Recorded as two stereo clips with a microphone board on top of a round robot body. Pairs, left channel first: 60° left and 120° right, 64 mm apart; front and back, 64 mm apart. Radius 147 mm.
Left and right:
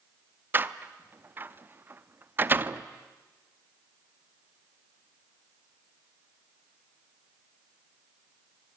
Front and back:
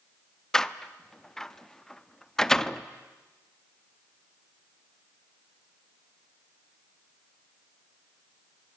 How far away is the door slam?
About 1.0 m.